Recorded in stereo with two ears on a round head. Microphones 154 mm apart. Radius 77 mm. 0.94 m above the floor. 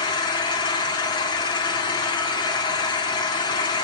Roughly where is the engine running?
Left.